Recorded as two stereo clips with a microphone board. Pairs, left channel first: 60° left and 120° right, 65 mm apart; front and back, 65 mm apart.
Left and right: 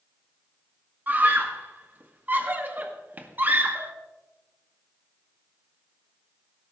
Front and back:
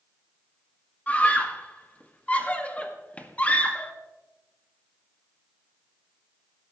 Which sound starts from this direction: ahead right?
A scream, at 1.1 s.